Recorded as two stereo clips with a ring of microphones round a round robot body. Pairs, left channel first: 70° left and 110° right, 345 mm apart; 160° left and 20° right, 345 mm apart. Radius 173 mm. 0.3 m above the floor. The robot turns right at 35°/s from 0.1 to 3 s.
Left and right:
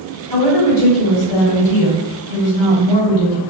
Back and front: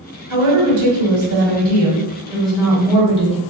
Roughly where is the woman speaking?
Ahead.